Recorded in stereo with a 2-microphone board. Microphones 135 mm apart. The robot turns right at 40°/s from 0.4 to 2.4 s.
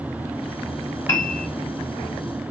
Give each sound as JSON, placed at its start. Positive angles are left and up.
{"t": 1.1, "sound": "a piano", "side_deg": 20, "distance_m": 1.1}